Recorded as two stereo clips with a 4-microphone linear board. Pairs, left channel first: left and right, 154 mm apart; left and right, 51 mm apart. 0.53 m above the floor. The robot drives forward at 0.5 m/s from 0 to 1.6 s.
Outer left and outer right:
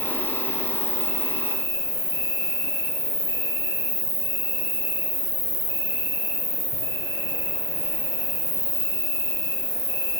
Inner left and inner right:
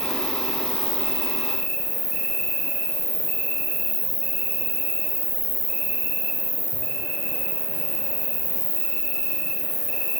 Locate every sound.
0.0 s an insect: 20° left (ahead or behind), 4.5 m; by 10.2 s 25° left (ahead or behind), 3.5 m